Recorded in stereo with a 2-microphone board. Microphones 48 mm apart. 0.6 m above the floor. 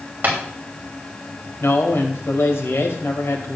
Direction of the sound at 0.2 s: 40° right (ahead or behind).